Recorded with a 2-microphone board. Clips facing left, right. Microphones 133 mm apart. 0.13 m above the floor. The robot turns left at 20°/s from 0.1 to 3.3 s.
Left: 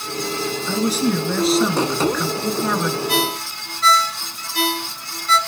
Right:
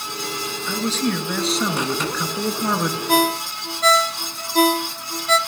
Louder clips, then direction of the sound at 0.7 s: Left 3 dB; 20° left.